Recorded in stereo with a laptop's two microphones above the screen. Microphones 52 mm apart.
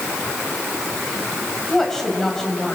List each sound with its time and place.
1.7 s a woman speaking: 10° left (ahead or behind), 5.5 m